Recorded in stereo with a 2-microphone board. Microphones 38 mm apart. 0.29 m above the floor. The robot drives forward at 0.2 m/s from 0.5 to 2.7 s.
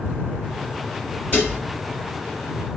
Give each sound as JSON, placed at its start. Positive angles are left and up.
{"t": 1.3, "sound": "dishes clattering", "side_deg": 40, "distance_m": 3.0}